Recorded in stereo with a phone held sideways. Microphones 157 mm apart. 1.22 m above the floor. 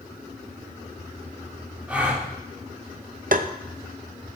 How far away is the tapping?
About 0.6 m.